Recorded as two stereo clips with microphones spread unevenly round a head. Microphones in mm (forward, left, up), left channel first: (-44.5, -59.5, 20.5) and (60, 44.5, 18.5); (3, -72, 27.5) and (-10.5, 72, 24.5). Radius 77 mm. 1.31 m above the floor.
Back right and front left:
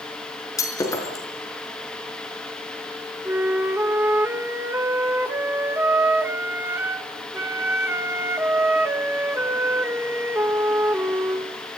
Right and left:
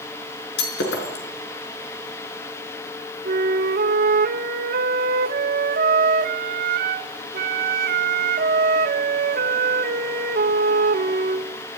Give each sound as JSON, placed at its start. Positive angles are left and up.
{"t": 0.6, "sound": "breaking glass", "azimuth_deg": -65, "distance_m": 5.0}
{"t": 3.2, "sound": "a flute", "azimuth_deg": 120, "distance_m": 1.8}